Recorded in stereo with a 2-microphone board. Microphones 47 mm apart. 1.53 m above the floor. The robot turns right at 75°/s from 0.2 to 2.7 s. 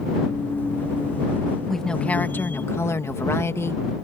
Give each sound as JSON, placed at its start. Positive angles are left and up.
{"t": 1.7, "sound": "a woman speaking", "azimuth_deg": 5}